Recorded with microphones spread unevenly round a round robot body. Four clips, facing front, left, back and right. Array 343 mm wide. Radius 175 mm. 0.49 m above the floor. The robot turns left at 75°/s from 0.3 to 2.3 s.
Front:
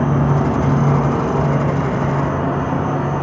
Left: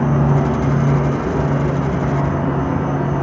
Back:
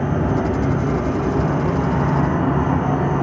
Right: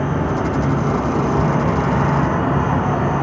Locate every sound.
0.0 s an insect: 35° left, 1.6 m; by 3.2 s 115° right, 1.6 m